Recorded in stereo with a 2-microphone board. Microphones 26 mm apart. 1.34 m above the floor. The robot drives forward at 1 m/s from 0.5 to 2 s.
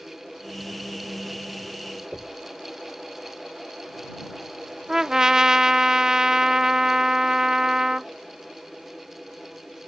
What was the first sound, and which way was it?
Knocking, 40° right (ahead or behind).